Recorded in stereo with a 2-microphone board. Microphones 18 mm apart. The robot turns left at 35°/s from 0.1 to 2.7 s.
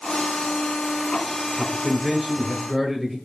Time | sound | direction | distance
1.6 | a man speaking | 30° left | 1.9 m